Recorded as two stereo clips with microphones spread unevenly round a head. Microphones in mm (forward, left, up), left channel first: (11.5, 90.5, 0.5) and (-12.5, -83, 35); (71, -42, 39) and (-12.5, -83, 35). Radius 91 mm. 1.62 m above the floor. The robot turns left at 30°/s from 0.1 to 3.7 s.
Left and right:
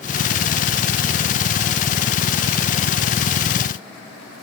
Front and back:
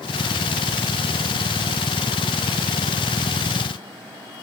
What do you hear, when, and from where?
Only background noise.